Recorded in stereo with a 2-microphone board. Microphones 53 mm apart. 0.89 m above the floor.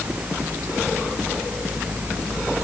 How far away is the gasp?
No gasp in this recording.